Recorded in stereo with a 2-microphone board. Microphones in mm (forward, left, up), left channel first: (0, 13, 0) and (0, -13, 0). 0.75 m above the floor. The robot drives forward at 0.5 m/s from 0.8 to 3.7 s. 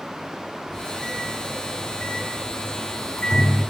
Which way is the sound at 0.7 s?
35° left (ahead or behind).